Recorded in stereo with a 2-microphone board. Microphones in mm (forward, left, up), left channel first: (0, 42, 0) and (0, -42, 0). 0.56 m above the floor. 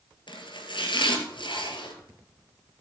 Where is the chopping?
70° left (ahead or behind), 2 m.